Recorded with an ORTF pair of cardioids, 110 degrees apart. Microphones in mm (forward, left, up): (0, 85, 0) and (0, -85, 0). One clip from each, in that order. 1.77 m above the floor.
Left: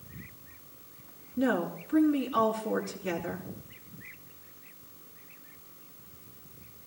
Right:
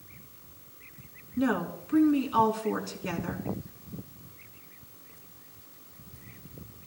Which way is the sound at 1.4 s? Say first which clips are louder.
Even; 30° right.